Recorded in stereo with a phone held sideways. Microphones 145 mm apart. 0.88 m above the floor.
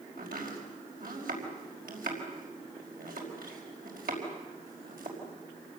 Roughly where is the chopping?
Right.